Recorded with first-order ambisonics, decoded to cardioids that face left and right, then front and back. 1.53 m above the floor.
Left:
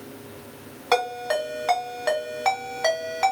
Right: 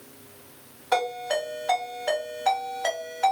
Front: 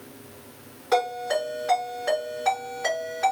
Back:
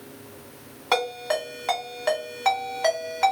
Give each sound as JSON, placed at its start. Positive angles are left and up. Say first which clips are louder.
{"t": 0.9, "sound": "a ringtone", "louder": "left 2 dB, front 1 dB", "azimuth_deg": 130, "distance_m": 1.8}